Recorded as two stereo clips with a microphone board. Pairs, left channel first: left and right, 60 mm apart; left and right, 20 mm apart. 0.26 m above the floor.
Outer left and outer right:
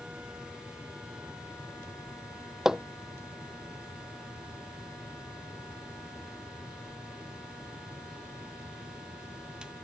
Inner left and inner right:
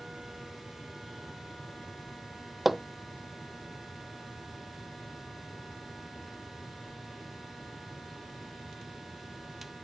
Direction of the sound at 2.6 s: 10° right (ahead or behind).